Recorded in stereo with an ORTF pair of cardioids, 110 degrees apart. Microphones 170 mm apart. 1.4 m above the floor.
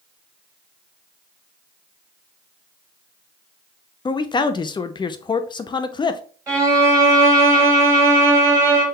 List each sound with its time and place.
4.0 s a man speaking: 30° left, 0.7 m
6.5 s a violin: 15° right, 3 m